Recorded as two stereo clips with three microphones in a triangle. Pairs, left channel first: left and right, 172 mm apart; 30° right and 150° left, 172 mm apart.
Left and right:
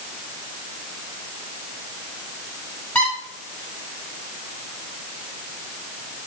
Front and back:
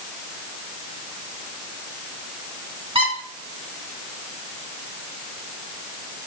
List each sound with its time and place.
3.0 s a squeak: 165° left, 1.7 m